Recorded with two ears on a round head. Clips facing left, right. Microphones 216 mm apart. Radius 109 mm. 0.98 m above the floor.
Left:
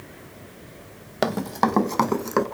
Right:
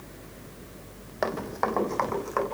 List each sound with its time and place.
1.2 s running footsteps: 55° left (ahead or behind), 2.5 m